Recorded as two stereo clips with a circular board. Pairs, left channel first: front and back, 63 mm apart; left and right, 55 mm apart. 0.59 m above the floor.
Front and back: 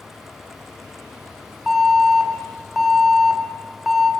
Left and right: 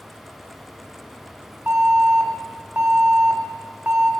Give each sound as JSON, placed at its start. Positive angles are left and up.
{"t": 1.7, "sound": "an alarm", "azimuth_deg": -95, "distance_m": 1.0}